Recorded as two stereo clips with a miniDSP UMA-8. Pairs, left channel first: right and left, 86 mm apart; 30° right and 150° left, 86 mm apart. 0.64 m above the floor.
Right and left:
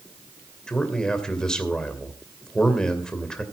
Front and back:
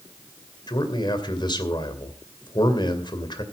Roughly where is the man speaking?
Ahead.